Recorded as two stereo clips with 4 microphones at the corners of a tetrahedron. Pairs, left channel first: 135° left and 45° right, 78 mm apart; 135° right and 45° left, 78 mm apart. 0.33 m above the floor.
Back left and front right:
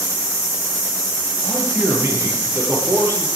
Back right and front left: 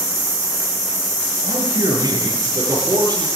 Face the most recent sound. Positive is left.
turn(degrees=10)